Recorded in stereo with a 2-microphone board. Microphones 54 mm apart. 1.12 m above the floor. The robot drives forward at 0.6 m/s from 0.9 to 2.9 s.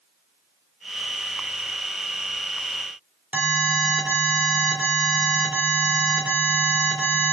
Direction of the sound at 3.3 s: 35° right (ahead or behind).